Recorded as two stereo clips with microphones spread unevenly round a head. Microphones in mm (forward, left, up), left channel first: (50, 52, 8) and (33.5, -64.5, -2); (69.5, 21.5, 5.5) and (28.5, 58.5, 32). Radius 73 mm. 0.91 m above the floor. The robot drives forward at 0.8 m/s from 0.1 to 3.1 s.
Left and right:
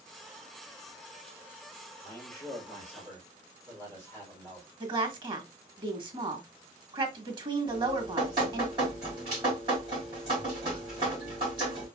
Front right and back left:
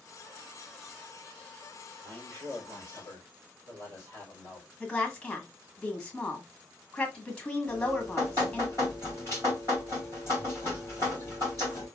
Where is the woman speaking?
75° right, 1.0 m.